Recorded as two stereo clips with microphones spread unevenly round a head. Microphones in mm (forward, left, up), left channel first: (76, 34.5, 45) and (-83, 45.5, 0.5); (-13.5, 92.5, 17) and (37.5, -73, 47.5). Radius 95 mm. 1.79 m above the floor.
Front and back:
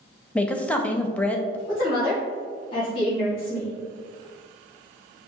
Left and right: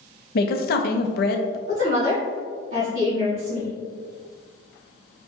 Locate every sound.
0.3 s a woman speaking: 70° left, 0.6 m
1.7 s a woman speaking: 65° right, 1.9 m